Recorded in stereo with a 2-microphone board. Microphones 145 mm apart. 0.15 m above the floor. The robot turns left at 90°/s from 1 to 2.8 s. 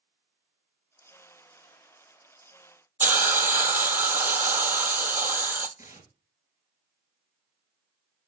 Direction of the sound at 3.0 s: 15° right (ahead or behind).